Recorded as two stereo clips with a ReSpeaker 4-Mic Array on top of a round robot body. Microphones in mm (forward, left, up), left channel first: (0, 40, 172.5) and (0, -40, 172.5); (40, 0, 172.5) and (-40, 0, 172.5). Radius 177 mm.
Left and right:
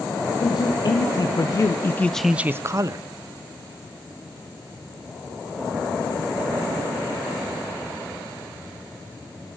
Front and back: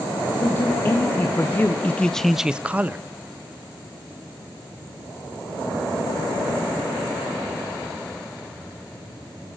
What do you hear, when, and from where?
0.4 s a man speaking: 60° left, 1.2 m; by 3.0 s 115° right, 0.7 m